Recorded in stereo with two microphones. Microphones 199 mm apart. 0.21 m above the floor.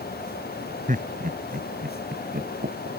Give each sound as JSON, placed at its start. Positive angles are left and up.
{"t": 0.9, "sound": "laughter", "side_deg": -40}